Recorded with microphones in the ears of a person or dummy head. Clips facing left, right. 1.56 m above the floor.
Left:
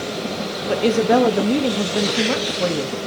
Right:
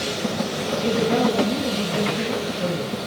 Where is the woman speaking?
80° left, 0.6 m.